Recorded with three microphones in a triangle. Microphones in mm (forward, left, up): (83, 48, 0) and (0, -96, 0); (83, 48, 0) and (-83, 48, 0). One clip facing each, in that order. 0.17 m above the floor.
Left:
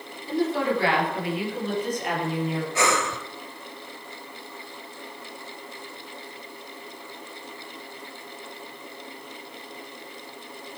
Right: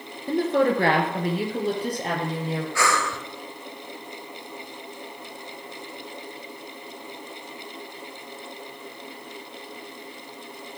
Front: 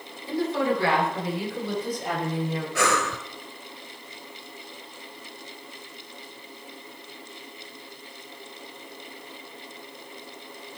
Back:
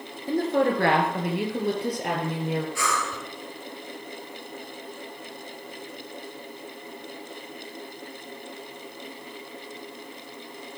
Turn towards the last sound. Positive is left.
turn(degrees=-10)